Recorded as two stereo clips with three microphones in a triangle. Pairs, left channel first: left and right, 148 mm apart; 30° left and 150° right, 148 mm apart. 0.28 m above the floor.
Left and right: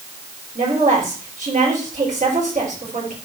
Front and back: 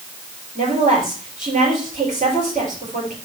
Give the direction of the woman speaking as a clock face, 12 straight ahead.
4 o'clock.